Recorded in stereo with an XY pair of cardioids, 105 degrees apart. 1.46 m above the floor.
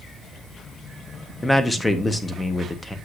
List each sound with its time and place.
1.4 s a man speaking: 15° left, 1.2 m